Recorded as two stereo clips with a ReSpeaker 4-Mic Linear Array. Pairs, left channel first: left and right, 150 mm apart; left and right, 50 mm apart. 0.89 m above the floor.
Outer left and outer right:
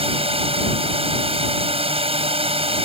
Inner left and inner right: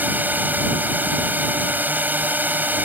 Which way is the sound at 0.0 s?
40° right (ahead or behind).